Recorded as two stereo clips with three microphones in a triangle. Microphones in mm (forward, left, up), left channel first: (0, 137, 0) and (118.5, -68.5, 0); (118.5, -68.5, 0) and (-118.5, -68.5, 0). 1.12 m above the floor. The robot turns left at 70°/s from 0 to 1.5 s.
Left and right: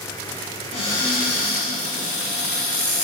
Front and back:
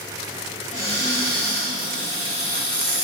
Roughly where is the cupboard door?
Ahead left.